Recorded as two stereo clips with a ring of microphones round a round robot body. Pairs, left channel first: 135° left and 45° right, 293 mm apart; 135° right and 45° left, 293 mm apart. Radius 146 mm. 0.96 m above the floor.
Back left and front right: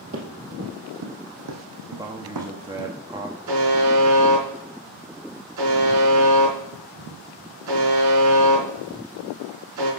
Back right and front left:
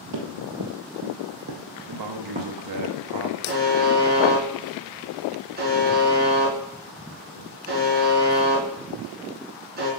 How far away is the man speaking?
About 1.4 m.